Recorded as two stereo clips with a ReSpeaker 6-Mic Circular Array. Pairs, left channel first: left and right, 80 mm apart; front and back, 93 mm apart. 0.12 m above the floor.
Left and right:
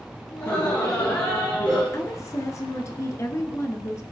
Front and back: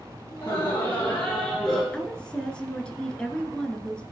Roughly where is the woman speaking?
Left.